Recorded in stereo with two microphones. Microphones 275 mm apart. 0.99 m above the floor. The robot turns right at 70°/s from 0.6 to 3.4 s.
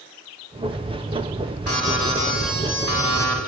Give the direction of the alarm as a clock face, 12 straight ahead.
10 o'clock.